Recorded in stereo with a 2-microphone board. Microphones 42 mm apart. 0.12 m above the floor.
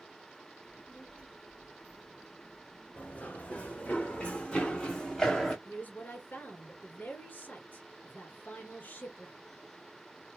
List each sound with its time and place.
0.6 s a child speaking: 30° left (ahead or behind), 2.5 m; by 4.0 s 40° left (ahead or behind), 1.3 m
3.0 s running footsteps: 40° left (ahead or behind), 2.5 m; by 5.5 s 15° left (ahead or behind), 1.9 m
5.7 s a woman speaking: 45° left (ahead or behind), 2.5 m